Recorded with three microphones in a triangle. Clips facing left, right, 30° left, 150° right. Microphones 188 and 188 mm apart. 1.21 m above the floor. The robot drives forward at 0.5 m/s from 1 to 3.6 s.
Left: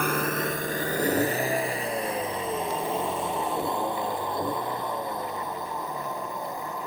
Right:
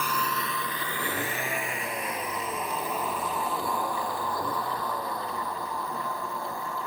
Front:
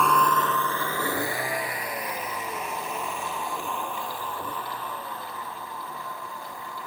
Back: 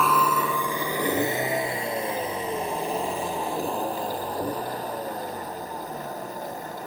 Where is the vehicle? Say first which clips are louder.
Left 5 dB, even; 120° left; by 6.9 s 160° left.